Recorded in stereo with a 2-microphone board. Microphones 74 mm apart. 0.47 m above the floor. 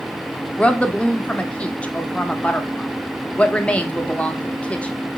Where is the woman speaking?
20° left (ahead or behind), 0.8 m.